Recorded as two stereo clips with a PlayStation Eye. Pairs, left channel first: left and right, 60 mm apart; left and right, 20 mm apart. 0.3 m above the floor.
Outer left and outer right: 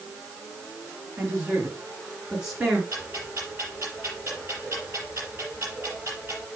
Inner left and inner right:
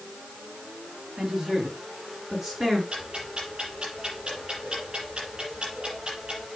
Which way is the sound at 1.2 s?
30° right (ahead or behind).